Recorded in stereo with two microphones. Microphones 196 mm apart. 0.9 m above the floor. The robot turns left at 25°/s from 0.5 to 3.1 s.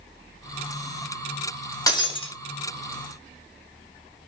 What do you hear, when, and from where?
1.9 s breaking glass: 15° left (ahead or behind), 2 m; by 2.3 s 30° left (ahead or behind), 2 m